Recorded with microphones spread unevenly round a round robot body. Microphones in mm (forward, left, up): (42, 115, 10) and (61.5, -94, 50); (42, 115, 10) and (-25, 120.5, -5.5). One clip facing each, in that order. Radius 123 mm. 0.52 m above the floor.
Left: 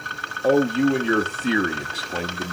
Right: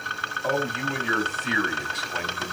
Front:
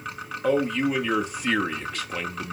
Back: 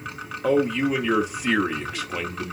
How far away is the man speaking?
About 0.9 m.